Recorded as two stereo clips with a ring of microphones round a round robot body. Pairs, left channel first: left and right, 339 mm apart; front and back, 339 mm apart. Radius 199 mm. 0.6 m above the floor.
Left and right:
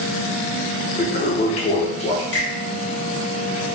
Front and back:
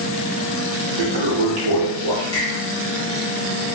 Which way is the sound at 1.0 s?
165° left.